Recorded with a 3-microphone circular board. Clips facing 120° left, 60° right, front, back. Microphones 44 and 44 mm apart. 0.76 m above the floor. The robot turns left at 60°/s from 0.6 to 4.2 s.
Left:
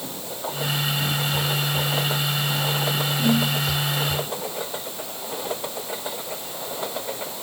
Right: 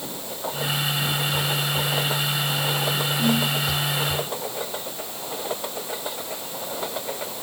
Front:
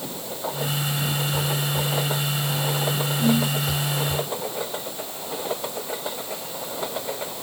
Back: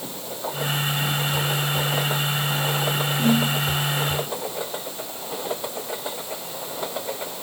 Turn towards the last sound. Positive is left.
turn(degrees=160)